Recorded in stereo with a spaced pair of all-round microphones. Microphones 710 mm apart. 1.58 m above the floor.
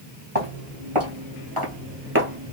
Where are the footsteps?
50° right (ahead or behind), 2.5 m; by 2.5 s 5° right (ahead or behind), 1.5 m.